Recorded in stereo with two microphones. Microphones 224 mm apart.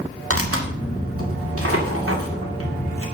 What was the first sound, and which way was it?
Tearing paper, 80° right.